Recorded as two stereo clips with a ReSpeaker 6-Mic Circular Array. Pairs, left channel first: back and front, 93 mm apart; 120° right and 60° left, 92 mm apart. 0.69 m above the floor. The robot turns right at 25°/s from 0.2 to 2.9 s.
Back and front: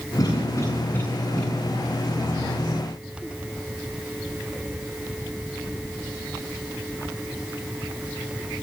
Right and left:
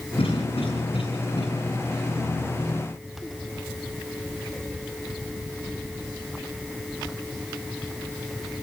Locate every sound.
0.2 s a cough: 130° right, 9 m; by 1.4 s 100° right, 9 m